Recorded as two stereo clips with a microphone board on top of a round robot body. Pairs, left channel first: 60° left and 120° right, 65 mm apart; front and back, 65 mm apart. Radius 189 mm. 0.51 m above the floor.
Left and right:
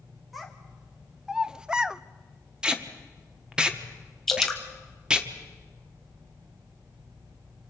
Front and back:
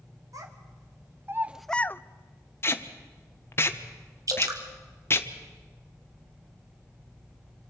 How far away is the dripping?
About 1.7 m.